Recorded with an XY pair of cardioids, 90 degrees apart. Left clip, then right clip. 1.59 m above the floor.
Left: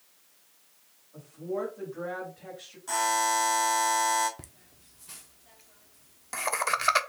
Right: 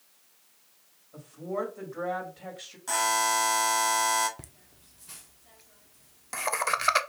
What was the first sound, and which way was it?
A woman speaking, 65° right.